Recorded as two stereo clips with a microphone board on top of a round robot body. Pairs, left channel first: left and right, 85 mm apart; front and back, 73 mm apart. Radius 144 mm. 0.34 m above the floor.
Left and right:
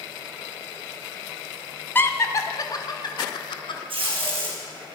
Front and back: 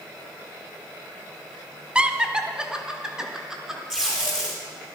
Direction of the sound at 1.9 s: 120° left.